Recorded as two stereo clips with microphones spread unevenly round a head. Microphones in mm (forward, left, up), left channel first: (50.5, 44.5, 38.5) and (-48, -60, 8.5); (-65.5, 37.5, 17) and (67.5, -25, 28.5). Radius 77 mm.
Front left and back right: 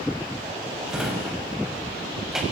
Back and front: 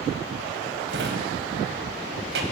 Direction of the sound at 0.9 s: 45° right.